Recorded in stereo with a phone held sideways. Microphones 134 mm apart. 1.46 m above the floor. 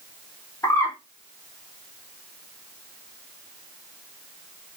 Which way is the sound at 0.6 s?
20° left (ahead or behind).